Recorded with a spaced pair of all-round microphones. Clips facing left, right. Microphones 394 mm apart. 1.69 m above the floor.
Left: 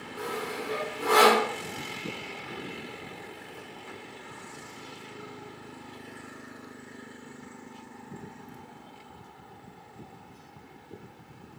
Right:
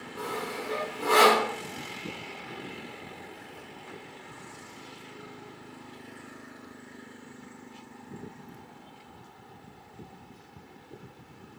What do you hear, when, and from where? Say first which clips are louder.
0.2 s sawing: left 1 dB; 5° right (ahead or behind), 3 m